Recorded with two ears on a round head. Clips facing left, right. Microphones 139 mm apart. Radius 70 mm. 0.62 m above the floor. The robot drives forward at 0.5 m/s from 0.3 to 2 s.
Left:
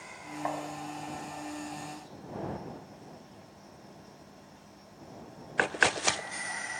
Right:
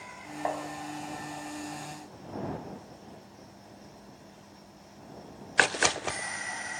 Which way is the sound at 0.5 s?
25° right (ahead or behind).